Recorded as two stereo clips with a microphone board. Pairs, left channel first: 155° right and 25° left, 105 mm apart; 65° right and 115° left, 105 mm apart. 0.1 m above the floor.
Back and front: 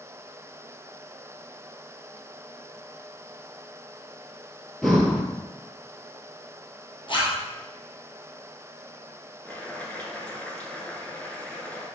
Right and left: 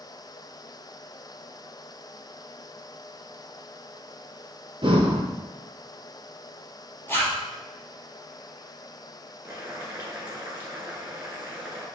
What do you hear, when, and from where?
4.8 s breathing: 115° left, 0.9 m
7.1 s a zipper: 135° right, 1.6 m
9.4 s boiling: 145° left, 1.3 m